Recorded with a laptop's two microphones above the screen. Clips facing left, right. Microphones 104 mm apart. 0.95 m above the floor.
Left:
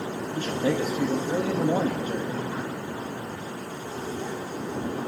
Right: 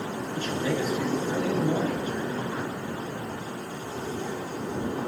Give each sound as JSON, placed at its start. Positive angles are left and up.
{"t": 0.3, "sound": "a man speaking", "side_deg": 40, "distance_m": 0.8}